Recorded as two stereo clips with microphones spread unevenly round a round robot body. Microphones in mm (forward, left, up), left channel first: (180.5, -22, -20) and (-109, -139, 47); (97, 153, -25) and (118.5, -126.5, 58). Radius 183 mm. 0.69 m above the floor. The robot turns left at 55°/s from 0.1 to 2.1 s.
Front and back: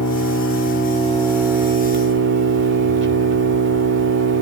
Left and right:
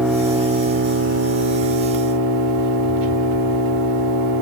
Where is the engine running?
5° left, 3 m; by 4.4 s 105° right, 3 m.